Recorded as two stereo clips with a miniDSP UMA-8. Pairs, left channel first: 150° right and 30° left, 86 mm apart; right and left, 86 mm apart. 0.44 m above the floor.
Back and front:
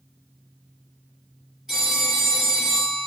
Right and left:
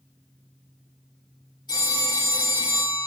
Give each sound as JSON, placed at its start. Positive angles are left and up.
{"t": 1.7, "sound": "a phone ringing", "azimuth_deg": -55, "distance_m": 5.5}